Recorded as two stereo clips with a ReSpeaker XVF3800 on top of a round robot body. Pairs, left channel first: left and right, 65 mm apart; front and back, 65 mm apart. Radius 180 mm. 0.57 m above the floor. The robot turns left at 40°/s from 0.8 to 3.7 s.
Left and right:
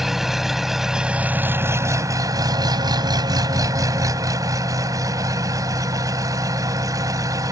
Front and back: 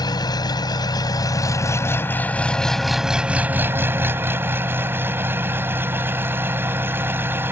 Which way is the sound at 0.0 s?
5° right.